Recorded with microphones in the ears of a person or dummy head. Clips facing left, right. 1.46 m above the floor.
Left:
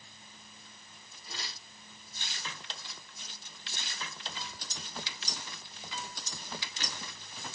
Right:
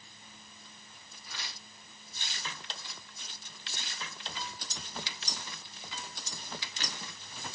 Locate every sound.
1.3 s tearing paper: 25° left (ahead or behind), 3 m